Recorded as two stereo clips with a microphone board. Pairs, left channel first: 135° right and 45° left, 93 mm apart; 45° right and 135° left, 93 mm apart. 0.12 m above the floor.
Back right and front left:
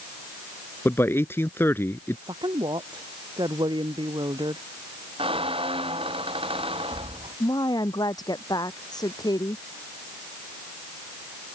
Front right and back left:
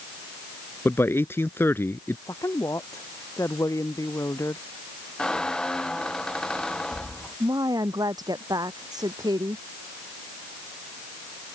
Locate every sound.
0.8 s a man speaking: 90° right
2.3 s a woman speaking: 10° left
5.2 s a squeak: 35° left
7.4 s a woman speaking: straight behind